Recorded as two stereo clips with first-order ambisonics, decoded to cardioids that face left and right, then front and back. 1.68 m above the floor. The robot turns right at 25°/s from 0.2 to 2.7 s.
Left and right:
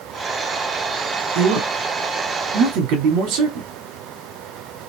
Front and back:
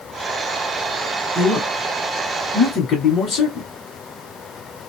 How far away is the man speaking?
About 1.1 m.